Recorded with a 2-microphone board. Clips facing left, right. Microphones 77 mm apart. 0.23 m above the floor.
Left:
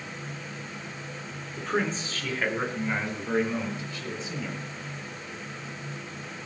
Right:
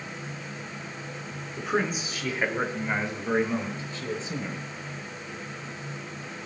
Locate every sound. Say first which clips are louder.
1.6 s a man speaking: right 1 dB; 10° right (ahead or behind), 3 m; by 4.6 s 35° right (ahead or behind), 5.5 m